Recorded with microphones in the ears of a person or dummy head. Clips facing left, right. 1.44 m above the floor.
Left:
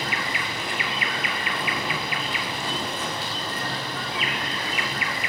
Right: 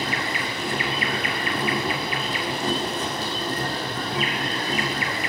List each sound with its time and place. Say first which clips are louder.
0.0 s an insect: right 3 dB; 35° right (ahead or behind), 2 m